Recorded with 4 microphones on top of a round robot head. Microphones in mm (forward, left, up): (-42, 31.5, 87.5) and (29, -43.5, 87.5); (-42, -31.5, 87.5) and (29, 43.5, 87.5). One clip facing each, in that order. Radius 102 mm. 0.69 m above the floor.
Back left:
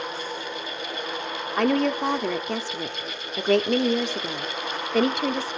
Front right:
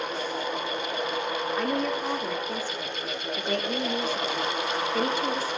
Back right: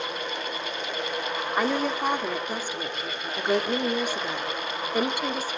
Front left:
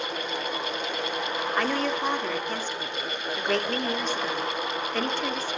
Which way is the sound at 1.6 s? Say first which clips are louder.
Back left 9 dB, back right 2 dB; 145° left.